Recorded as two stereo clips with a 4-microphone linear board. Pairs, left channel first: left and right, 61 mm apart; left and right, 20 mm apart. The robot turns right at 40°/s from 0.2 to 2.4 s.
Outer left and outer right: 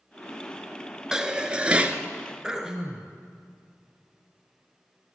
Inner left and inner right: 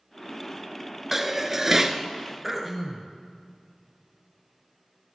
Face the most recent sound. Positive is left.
turn(degrees=-10)  # may be behind; listen again after turning